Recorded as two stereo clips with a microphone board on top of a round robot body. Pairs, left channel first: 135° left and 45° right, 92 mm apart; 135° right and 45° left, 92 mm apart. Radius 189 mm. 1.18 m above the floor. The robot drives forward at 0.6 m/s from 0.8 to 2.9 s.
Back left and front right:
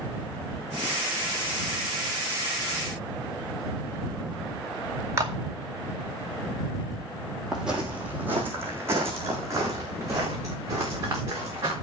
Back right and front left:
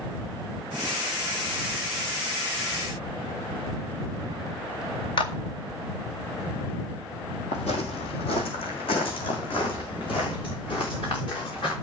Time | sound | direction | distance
5.2 | a clap | 105° right | 1.9 m
7.5 | footsteps | 135° right | 1.7 m